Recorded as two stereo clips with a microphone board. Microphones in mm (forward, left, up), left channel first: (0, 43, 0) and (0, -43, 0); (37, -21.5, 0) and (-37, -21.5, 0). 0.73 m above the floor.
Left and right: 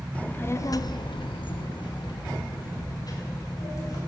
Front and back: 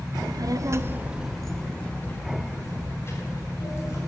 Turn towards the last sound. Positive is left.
turn(degrees=45)